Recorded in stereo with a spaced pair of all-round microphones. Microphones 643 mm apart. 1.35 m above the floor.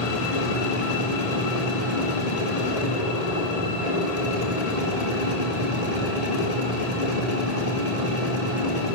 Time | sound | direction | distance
0.0 | a machine running | 85° left | 5 m